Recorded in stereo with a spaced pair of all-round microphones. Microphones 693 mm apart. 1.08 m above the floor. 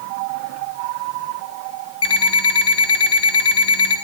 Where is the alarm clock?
35° left (ahead or behind), 5.5 m.